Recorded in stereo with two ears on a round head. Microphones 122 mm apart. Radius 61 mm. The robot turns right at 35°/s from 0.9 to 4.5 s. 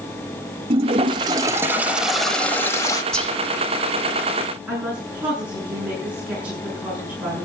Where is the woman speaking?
10° right (ahead or behind), 7.5 m.